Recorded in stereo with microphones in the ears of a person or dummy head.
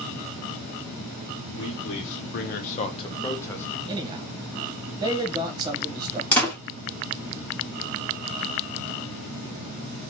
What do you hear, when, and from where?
1.5 s a man speaking: 65° left (ahead or behind), 1.0 m; by 3.8 s 10° left (ahead or behind), 1.2 m
3.9 s a man speaking: 20° right (ahead or behind), 1.3 m
6.3 s a door slam: 10° left (ahead or behind), 1.6 m